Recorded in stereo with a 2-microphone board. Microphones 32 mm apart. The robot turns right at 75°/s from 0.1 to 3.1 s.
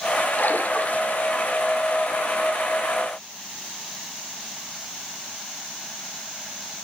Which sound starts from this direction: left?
A splash, at 0.4 s.